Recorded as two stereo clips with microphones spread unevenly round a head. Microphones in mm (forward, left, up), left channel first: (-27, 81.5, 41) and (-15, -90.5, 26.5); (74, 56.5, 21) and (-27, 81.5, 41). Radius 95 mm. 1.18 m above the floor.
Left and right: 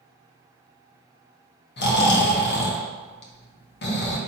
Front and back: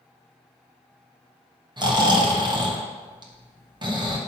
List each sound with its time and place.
1.8 s snoring: 120° left, 1.3 m